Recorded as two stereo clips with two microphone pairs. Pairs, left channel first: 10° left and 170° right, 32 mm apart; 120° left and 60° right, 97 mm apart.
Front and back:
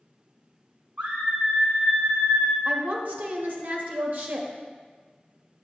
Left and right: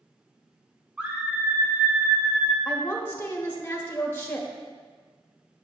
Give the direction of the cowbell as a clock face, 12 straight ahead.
I don't hear a cowbell.